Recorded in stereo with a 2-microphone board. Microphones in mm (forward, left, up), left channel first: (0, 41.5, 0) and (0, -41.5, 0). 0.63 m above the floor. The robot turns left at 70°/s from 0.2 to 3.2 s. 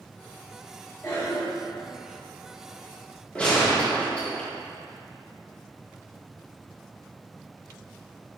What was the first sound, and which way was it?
A cough, 35° left (ahead or behind).